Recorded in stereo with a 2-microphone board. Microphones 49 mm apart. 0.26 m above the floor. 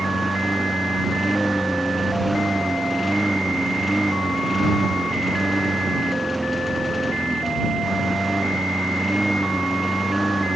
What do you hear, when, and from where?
0.0 s a lawn mower: centre (ahead or behind)